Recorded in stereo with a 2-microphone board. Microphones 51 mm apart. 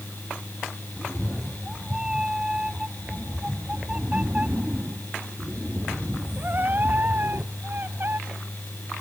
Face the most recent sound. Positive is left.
turn(degrees=-45)  # may be behind; listen again after turning